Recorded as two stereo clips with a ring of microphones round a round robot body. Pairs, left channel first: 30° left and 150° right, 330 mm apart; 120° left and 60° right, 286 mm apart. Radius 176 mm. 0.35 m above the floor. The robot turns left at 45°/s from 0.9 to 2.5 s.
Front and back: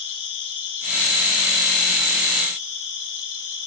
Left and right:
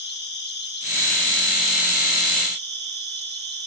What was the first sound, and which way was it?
An insect, 65° left.